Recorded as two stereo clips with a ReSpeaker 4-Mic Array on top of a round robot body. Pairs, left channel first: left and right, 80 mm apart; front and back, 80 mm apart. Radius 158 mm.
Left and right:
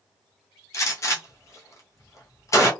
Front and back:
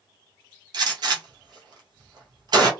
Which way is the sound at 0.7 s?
145° left.